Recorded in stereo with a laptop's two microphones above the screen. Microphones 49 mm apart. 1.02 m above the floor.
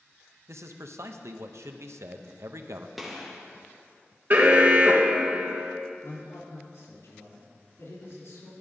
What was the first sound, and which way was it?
A man speaking, 70° right (ahead or behind).